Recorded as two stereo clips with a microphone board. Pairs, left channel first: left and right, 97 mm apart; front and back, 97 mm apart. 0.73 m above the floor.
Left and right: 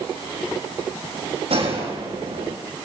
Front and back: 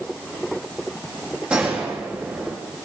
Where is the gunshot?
100° right, 5.5 m.